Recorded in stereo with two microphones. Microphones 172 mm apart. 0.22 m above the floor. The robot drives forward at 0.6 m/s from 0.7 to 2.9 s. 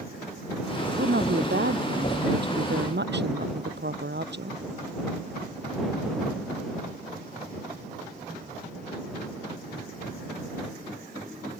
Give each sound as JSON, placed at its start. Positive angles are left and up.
{"t": 0.9, "sound": "a woman speaking", "side_deg": -80}